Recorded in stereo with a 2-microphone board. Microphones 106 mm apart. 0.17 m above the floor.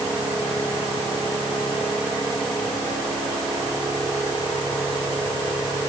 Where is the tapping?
No tapping in this recording.